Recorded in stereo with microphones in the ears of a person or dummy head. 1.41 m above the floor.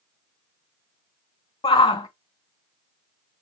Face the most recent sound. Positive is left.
turn(degrees=20)  # may be behind; listen again after turning